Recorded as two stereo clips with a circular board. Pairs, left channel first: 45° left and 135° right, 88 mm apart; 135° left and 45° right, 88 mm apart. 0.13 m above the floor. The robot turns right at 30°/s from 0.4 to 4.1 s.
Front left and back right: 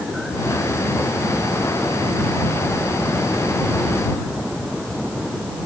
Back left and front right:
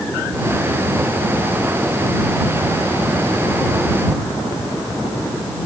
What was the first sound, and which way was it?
Only background noise.